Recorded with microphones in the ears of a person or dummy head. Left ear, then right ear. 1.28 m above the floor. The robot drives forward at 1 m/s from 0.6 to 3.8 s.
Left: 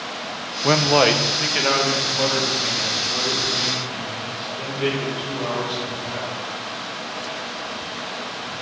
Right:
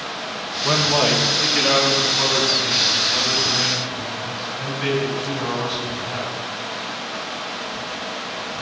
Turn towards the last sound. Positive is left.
turn(degrees=10)  # may be behind; listen again after turning